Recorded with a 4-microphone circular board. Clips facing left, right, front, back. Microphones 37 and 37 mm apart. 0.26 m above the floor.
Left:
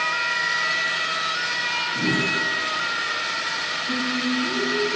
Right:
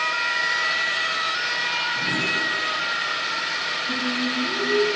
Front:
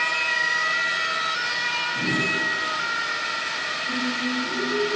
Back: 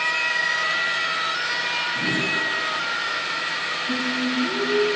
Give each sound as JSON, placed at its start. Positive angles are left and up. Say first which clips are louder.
{"t": 1.9, "sound": "a whoosh", "louder": "left 1 dB, even", "azimuth_deg": 95, "distance_m": 1.7}
{"t": 3.9, "sound": "singing", "louder": "left 2 dB, back 2 dB", "azimuth_deg": 180, "distance_m": 1.8}